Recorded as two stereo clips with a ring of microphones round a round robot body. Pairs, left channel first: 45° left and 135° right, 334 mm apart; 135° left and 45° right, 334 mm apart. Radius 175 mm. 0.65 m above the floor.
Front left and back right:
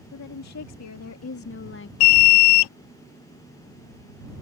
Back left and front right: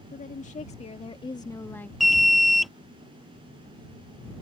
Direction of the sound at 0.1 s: 70° left.